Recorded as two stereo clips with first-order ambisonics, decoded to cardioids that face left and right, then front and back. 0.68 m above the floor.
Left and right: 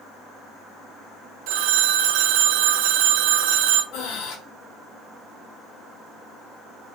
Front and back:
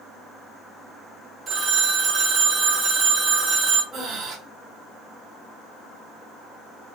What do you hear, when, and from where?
1.5 s a phone ringing: 105° right, 0.8 m
3.9 s breathing: 120° left, 1.3 m